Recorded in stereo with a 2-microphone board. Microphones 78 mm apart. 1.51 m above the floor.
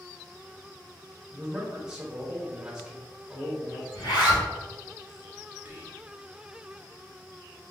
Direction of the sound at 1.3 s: 5° right (ahead or behind).